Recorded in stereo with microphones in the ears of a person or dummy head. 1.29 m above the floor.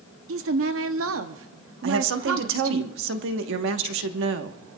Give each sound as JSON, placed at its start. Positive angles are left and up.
{"t": 0.3, "sound": "a woman speaking", "side_deg": -70, "distance_m": 0.7}
{"t": 1.8, "sound": "a woman speaking", "side_deg": -70, "distance_m": 1.2}